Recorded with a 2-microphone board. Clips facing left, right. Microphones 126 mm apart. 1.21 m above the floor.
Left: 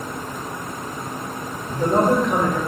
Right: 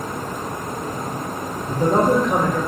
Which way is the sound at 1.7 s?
35° right (ahead or behind).